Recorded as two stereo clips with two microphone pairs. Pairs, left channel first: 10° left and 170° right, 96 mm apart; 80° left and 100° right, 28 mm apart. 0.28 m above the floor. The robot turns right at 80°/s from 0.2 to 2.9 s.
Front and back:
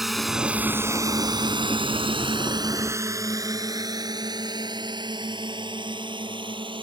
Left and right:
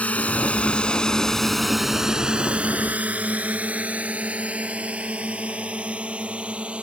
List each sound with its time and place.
0.0 s a drone: 100° left; by 6.8 s 140° right